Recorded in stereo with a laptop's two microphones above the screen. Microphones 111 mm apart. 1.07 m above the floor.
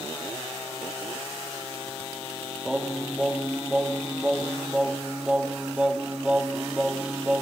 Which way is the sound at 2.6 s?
10° right (ahead or behind).